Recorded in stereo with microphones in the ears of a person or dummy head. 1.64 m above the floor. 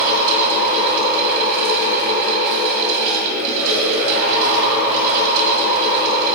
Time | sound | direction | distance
0.0 | a fan | 55° right (ahead or behind) | 5 m